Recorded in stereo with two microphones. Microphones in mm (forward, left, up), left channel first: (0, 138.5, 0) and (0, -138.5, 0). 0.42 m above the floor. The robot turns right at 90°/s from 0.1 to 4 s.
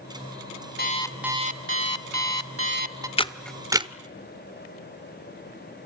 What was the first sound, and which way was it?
An alarm clock, 145° left.